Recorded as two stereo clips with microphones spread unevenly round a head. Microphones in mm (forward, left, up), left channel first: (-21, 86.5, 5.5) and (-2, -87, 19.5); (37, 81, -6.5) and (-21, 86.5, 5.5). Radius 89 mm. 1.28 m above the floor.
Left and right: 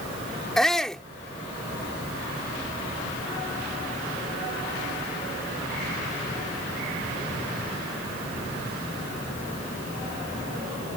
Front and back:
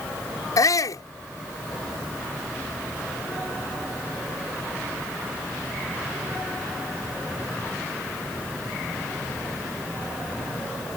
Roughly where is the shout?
Ahead.